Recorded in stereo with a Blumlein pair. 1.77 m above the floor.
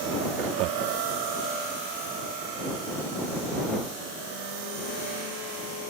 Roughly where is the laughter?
Ahead right.